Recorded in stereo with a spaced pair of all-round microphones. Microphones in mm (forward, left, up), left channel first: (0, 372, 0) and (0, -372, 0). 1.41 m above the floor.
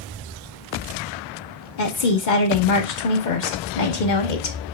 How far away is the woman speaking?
About 1.2 m.